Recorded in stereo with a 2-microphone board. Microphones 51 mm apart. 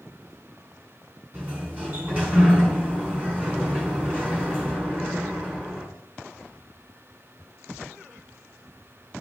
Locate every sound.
1.3 s a sliding door: 30° right (ahead or behind), 1.9 m